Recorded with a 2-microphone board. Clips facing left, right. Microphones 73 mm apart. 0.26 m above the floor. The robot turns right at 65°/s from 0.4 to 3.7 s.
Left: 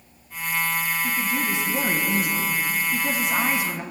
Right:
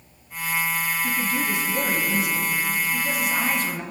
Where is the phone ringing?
No phone ringing in this recording.